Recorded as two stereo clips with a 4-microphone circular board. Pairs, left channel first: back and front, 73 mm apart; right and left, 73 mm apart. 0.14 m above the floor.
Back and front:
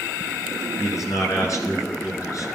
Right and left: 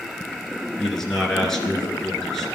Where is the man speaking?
170° right, 2.5 m.